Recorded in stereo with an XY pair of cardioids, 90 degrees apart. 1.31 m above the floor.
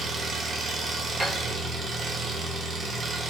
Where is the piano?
20° right, 0.8 m.